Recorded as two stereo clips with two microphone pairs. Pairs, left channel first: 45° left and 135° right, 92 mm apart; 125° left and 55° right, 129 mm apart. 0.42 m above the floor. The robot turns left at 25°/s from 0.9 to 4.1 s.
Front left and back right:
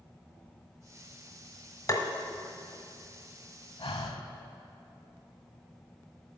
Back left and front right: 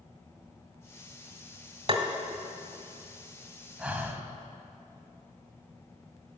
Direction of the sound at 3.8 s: 25° left.